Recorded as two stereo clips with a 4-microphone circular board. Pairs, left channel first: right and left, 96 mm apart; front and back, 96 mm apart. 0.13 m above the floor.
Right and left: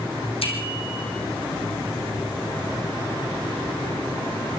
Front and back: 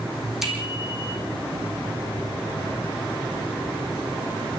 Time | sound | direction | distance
0.4 | a bicycle bell | 95° right | 4.5 m